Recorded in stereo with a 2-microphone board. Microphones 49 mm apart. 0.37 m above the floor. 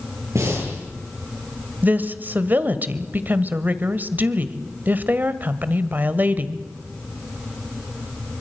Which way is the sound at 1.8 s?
40° right (ahead or behind).